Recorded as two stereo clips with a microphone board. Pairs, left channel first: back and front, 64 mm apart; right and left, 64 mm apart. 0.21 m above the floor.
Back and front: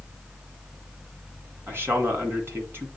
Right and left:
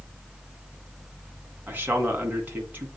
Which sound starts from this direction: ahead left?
A man speaking, at 1.7 s.